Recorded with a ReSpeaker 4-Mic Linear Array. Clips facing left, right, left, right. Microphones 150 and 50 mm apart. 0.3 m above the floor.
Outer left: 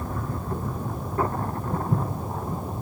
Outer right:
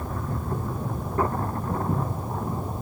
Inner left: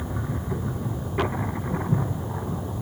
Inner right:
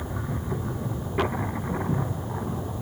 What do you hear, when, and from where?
1.7 s footsteps: 75° right (ahead or behind), 4 m